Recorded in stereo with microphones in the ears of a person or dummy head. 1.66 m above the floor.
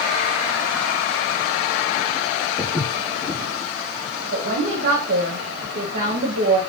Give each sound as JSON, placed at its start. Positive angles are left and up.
{"t": 2.6, "sound": "footsteps", "side_deg": 25, "distance_m": 3.0}
{"t": 4.3, "sound": "a woman speaking", "side_deg": -40, "distance_m": 0.9}